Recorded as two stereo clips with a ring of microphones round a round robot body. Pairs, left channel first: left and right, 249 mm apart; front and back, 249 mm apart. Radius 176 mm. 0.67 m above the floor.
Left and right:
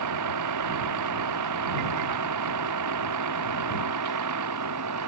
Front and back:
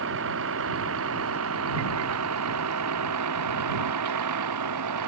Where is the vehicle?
125° right; by 5.1 s 140° right.